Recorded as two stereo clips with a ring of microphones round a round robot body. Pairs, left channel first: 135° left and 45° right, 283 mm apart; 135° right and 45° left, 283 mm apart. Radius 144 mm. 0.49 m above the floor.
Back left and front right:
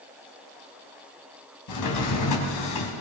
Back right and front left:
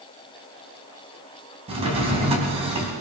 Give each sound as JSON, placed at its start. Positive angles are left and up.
{"t": 1.7, "sound": "a drawer", "azimuth_deg": 115, "distance_m": 2.5}